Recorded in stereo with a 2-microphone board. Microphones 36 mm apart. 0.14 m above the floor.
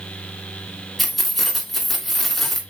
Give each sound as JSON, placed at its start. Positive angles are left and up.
{"t": 1.0, "sound": "keys jangling", "side_deg": 5, "distance_m": 0.9}